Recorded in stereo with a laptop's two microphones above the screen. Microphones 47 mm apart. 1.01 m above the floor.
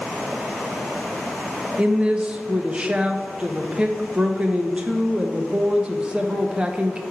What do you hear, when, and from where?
1.8 s a woman speaking: 20° right (ahead or behind), 0.9 m